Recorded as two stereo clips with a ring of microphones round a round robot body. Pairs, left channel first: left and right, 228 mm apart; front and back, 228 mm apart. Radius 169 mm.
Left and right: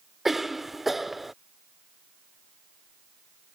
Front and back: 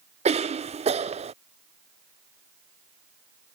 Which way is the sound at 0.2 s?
Straight behind.